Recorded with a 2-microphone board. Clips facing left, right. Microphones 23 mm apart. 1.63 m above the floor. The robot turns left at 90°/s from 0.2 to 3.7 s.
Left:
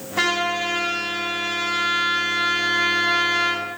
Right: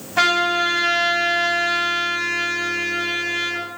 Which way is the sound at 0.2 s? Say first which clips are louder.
Right 4 dB; 45° right.